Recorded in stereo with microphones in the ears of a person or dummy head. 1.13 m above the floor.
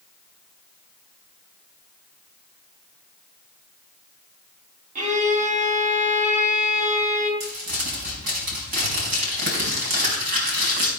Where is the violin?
40° right (ahead or behind), 3.5 m.